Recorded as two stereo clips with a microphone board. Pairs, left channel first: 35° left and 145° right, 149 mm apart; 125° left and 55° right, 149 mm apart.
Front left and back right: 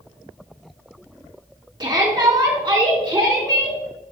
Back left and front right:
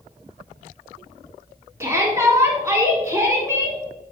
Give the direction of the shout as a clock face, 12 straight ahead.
4 o'clock.